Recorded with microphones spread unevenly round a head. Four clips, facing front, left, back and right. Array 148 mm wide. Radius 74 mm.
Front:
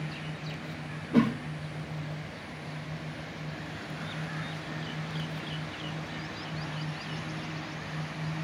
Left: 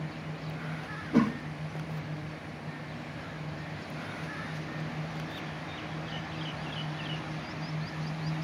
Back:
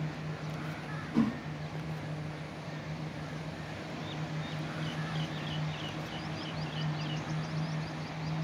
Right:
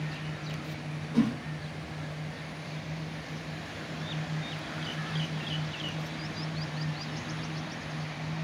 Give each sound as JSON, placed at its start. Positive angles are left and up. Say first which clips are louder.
{"t": 1.1, "sound": "a whoosh", "louder": "left 1 dB, front 5 dB", "azimuth_deg": 35, "distance_m": 1.0}